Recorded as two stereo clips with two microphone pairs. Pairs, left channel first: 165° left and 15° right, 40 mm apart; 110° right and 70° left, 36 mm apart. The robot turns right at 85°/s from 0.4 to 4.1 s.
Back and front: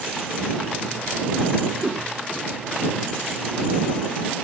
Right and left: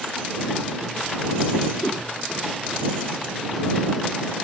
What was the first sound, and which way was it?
A whoosh, 85° right.